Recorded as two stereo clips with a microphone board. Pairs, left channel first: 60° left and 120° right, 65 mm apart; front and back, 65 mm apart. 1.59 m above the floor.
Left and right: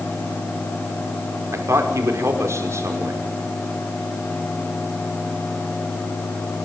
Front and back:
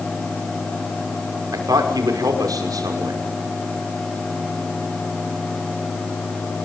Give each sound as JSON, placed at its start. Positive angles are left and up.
{"t": 1.5, "sound": "a man speaking", "azimuth_deg": -165, "distance_m": 5.5}